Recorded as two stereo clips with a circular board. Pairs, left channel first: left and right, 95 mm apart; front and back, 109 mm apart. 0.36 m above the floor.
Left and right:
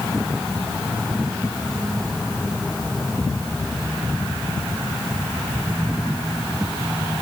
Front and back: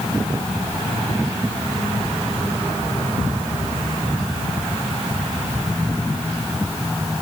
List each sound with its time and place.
Only background noise.